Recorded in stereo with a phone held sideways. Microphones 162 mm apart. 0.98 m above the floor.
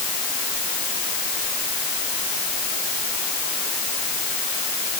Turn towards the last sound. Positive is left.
No sound to turn to.